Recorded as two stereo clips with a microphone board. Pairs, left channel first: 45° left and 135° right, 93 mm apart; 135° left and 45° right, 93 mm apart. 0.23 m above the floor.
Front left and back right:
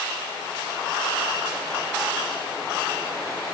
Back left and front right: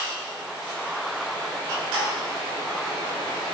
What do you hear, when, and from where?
Only background noise.